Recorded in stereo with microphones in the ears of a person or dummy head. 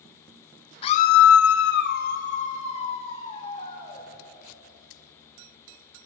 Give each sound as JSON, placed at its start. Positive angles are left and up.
{"t": 0.8, "sound": "a scream", "side_deg": 40, "distance_m": 1.0}